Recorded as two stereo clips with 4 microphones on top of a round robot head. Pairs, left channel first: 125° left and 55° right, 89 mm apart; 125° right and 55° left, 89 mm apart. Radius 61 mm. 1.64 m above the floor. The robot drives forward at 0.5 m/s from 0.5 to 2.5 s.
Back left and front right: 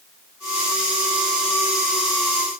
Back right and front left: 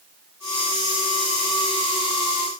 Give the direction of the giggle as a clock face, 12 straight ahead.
I don't hear a giggle.